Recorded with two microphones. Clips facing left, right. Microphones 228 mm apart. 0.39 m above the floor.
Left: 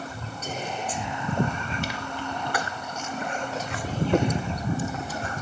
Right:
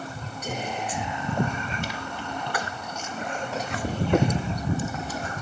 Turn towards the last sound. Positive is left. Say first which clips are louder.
# right 1 dB
turn(degrees=-15)  # may be behind; listen again after turning